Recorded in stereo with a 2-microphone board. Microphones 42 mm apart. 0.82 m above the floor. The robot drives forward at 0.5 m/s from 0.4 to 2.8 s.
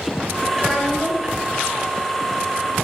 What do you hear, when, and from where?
0.5 s a child speaking: 5° left (ahead or behind), 1.4 m; by 1.4 s 10° left (ahead or behind), 1.0 m